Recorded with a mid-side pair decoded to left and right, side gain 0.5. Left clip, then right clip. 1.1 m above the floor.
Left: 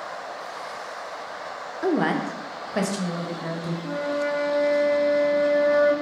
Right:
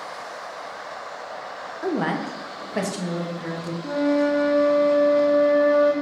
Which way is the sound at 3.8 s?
35° right.